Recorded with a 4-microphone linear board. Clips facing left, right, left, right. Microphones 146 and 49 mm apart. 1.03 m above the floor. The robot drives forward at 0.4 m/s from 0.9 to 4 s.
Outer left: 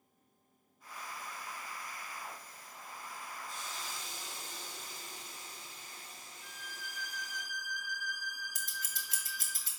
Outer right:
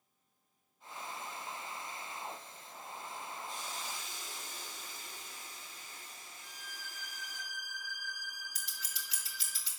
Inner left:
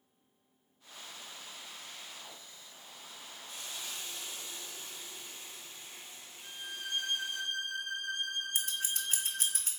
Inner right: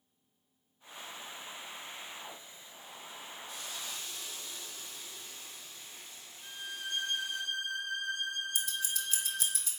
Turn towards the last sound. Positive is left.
turn(degrees=50)  # may be behind; listen again after turning